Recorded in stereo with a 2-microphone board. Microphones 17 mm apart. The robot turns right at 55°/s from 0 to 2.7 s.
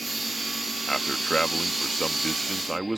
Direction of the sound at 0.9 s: 65° left.